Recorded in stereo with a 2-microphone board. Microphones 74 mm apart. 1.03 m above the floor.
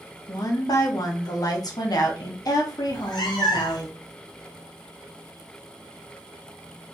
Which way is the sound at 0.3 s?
60° left (ahead or behind).